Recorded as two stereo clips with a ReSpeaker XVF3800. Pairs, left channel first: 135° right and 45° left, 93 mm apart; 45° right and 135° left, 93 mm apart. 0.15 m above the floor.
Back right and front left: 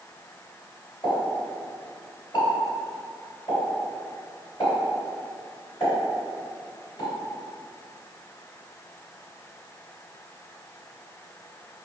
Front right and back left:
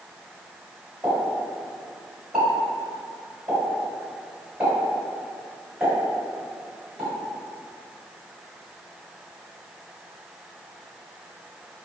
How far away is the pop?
About 2.0 m.